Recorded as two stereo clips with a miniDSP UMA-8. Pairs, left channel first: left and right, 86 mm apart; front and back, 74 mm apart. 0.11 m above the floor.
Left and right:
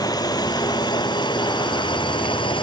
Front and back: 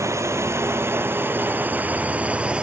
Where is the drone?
130° left; by 2.6 s 105° left.